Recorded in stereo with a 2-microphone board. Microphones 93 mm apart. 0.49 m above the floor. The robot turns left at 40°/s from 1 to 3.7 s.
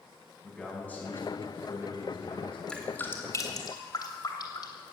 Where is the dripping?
10° left (ahead or behind), 2.5 m; by 4.9 s 45° left (ahead or behind), 2.5 m.